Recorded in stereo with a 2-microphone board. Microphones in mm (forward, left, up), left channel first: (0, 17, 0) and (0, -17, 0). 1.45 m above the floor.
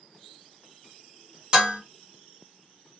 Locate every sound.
1.5 s dishes clattering: 20° right (ahead or behind), 1.5 m